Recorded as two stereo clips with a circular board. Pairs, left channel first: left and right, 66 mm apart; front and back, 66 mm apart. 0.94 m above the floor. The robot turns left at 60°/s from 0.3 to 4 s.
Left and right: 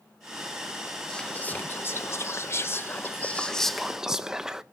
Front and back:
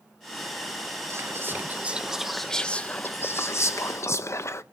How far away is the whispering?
About 0.5 m.